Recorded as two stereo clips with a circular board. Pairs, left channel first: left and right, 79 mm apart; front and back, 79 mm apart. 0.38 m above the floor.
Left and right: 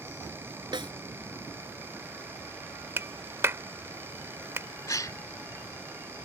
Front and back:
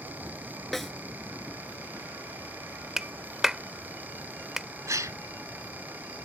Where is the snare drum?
90° right.